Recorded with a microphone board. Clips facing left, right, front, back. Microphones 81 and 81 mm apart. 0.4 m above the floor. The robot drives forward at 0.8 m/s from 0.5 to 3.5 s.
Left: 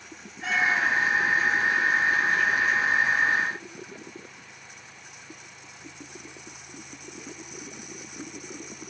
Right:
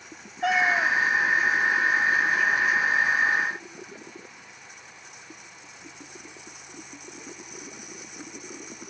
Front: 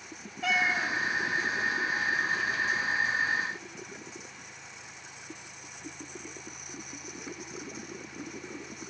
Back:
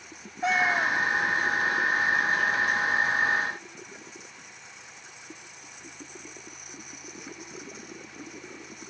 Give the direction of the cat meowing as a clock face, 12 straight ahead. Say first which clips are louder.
Right 2 dB, back 4 dB; 4 o'clock.